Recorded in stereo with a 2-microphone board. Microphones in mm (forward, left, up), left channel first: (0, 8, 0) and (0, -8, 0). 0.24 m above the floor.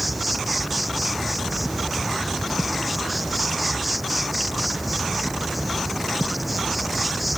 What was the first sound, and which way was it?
An insect, 5° right (ahead or behind).